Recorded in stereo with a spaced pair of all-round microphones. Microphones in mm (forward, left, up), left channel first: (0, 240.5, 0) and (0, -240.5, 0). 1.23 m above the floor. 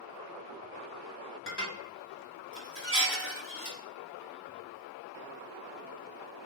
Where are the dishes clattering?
25° left (ahead or behind), 1.3 m.